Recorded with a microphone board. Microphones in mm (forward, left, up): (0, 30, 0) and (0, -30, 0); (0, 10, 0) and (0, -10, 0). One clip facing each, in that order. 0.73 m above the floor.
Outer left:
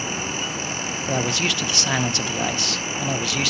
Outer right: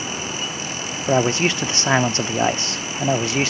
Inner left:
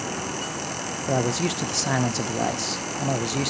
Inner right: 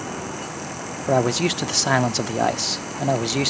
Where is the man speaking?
25° right (ahead or behind), 0.5 m.